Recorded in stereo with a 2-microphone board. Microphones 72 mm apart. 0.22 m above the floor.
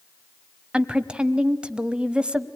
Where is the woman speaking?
15° right (ahead or behind), 1.1 m.